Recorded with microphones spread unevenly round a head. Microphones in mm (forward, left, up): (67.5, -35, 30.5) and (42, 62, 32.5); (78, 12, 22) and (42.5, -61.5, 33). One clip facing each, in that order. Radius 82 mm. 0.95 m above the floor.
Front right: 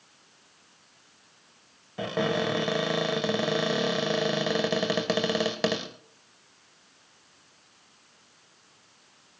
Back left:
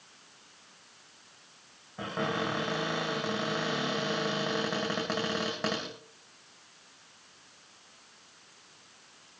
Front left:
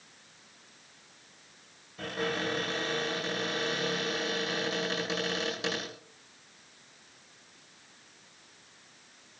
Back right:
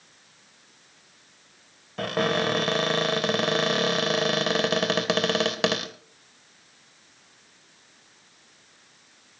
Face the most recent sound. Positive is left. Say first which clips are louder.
# front right 5 dB, back right 8 dB
turn(degrees=-105)